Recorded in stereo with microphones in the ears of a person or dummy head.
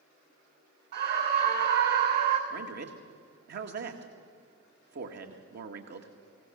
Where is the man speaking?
55° right (ahead or behind), 1.8 m.